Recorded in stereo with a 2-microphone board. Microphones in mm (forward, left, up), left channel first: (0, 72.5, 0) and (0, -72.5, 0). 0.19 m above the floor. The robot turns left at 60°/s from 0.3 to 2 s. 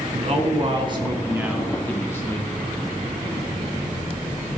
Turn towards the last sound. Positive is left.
turn(degrees=160)